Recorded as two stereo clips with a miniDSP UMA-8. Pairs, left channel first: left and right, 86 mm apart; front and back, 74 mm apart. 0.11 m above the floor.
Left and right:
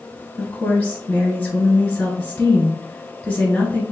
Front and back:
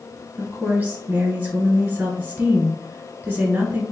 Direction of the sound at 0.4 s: 140° left.